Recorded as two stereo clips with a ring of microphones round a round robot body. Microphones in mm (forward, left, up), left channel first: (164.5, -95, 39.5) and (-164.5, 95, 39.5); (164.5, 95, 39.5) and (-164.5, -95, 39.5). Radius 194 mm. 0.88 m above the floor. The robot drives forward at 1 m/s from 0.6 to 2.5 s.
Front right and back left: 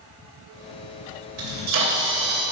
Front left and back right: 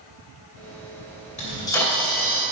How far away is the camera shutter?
About 2.5 m.